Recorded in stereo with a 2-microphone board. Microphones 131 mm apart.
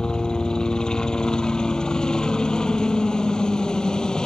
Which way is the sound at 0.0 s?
5° left (ahead or behind).